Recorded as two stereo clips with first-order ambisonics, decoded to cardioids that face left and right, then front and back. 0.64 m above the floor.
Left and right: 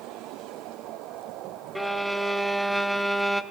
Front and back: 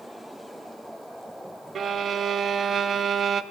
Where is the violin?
Straight behind, 0.5 m.